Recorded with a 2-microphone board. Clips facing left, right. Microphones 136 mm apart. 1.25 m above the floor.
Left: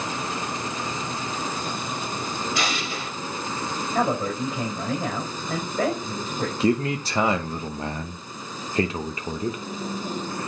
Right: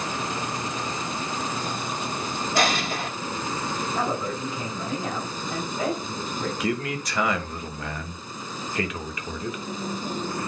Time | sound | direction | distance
2.5 | an explosion | 45° right (ahead or behind) | 1.8 m
3.9 | a man speaking | 60° left (ahead or behind) | 4.5 m
6.6 | a man speaking | 30° left (ahead or behind) | 0.9 m